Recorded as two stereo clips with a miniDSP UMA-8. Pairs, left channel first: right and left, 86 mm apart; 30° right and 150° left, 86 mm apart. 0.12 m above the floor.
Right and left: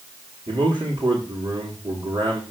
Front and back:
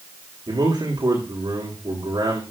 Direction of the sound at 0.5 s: 115° left.